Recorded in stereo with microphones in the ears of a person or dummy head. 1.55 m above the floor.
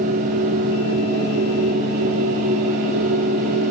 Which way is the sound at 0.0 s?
40° right (ahead or behind).